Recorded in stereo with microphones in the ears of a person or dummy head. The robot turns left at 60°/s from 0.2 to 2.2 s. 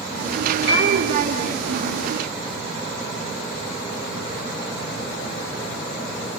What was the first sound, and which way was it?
A piano, 70° right (ahead or behind).